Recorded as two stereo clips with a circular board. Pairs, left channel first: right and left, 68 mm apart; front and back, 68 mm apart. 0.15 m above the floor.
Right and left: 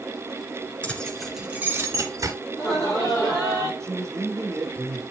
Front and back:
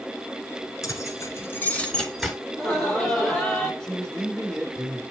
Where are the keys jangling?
20° right, 1.6 m; by 2.4 s 95° left, 1.7 m.